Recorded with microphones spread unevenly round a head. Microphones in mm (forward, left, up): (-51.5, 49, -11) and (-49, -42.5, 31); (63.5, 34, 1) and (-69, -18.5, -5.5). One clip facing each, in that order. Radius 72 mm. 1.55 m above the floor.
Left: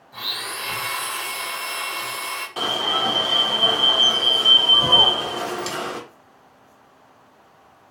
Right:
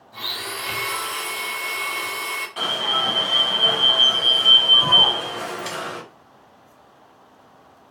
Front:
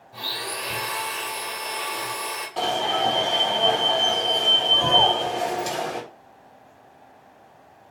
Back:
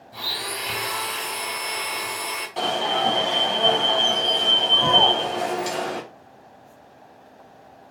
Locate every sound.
0.1 s a blender: 165° right, 2.0 m
2.6 s an alarm: 115° left, 1.0 m